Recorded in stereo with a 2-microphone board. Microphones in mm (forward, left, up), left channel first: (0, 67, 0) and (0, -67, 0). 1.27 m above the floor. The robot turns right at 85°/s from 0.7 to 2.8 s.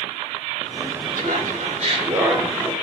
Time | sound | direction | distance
1.1 | laughter | 110° right | 1.6 m